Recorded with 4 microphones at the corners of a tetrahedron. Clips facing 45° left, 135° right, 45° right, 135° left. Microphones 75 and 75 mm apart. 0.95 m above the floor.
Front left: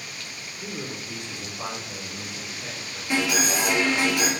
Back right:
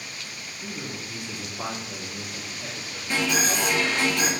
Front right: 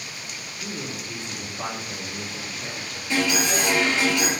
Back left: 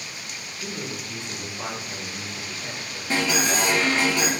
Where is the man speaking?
55° left, 0.8 m; by 3.0 s 120° right, 1.3 m.